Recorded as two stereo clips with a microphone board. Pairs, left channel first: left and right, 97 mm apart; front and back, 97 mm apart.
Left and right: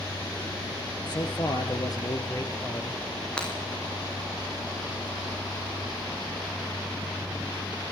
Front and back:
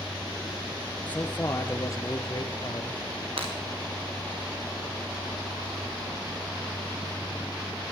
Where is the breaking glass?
170° left, 7 m.